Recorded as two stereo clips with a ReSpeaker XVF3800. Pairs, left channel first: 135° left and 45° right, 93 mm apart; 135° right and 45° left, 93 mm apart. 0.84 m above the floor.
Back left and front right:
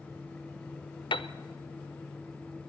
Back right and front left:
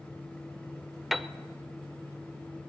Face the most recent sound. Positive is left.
turn(degrees=135)